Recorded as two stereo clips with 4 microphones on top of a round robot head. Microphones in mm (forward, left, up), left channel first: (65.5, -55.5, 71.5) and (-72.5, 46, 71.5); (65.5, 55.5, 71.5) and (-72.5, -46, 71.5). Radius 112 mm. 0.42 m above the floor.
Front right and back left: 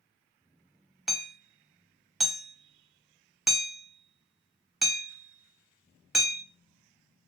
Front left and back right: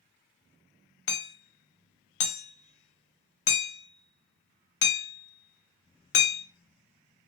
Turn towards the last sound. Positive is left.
turn(degrees=55)